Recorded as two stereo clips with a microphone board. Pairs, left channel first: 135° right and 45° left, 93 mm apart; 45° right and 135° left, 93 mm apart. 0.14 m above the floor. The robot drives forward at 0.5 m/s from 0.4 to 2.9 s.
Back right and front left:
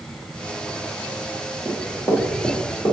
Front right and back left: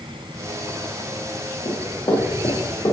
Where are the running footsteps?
65° right, 2 m; by 2.9 s 85° right, 3 m.